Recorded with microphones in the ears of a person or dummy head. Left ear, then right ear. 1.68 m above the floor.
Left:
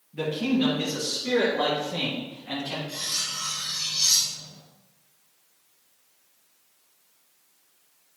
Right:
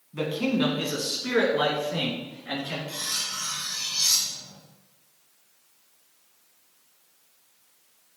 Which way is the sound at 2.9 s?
40° right (ahead or behind).